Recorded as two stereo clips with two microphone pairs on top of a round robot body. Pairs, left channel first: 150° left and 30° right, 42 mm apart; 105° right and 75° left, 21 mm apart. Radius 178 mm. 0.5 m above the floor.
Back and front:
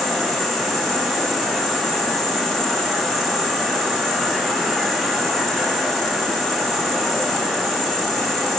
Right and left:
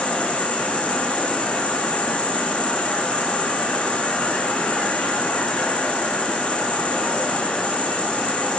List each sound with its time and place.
0.0 s an insect: 125° right, 1.1 m